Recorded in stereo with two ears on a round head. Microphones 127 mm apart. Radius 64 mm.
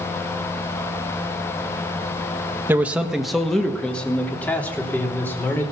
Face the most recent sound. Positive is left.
turn(degrees=15)  # may be behind; listen again after turning